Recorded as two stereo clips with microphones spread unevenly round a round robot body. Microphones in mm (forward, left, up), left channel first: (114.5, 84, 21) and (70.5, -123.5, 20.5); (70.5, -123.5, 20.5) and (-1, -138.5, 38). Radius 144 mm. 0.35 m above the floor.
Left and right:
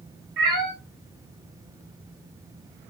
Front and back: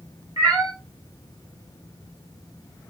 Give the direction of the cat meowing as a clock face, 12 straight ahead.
5 o'clock.